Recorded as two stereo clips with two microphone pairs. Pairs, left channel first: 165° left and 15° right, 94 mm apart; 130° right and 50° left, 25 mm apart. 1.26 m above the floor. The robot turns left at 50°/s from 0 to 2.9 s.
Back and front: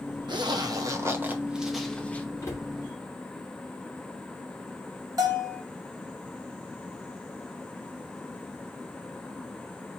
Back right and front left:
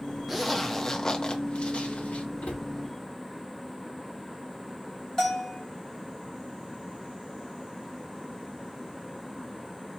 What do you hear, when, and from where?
0.3 s a zipper: 30° right, 0.9 m; by 2.3 s 130° right, 0.9 m
2.4 s a cupboard door: 135° right, 1.8 m; by 2.7 s 150° right, 1.8 m
5.2 s a bell: 65° right, 1.7 m